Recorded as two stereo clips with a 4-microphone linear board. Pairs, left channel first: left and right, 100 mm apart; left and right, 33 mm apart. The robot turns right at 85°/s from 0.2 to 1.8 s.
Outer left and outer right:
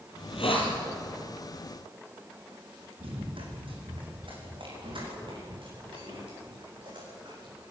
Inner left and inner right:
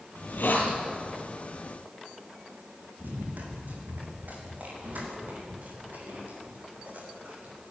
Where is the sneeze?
I don't hear a sneeze.